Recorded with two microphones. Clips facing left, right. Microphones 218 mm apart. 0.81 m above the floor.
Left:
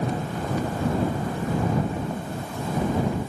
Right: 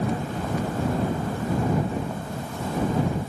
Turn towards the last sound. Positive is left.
No sound to turn to.